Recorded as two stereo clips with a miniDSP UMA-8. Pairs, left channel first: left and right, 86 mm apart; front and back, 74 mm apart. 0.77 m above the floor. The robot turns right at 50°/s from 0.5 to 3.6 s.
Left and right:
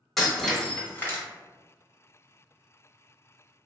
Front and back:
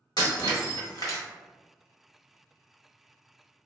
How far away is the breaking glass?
About 1.0 m.